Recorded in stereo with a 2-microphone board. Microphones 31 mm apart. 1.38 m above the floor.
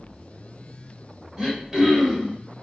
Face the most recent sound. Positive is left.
turn(degrees=-15)  # may be behind; listen again after turning